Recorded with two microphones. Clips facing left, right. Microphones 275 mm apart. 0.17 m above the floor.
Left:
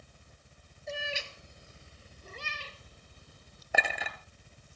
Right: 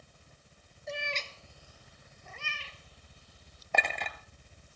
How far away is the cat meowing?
About 1.1 m.